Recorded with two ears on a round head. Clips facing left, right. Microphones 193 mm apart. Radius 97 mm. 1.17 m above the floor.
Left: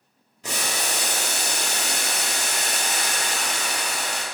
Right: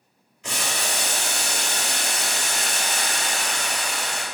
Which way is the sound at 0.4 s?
35° left (ahead or behind).